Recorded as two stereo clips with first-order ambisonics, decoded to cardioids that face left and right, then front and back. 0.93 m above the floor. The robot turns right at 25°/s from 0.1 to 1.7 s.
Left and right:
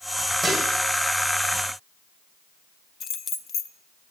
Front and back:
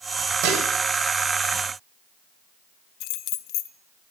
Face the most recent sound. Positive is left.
turn(degrees=30)